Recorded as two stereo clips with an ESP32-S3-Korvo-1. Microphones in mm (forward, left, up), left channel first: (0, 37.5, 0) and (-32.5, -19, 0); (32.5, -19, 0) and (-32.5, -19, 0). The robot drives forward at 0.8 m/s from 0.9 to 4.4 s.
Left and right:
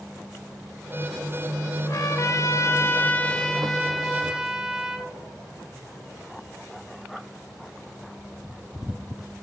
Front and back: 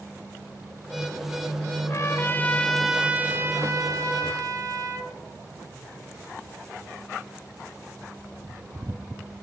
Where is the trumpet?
30° left, 1.1 m; by 5.2 s 160° left, 1.4 m.